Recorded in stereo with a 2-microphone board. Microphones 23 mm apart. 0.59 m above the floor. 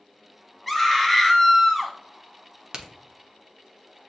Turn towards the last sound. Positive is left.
turn(degrees=-30)  # may be behind; listen again after turning